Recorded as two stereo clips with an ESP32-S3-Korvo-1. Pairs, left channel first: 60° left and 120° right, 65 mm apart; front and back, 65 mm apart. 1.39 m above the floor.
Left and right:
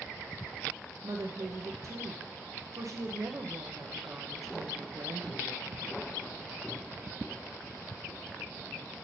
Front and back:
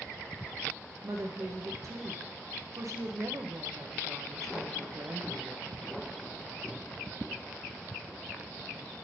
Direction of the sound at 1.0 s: 150° right.